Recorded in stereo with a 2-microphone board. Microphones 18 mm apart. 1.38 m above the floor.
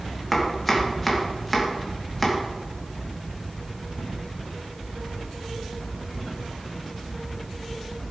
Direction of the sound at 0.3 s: 5° left (ahead or behind).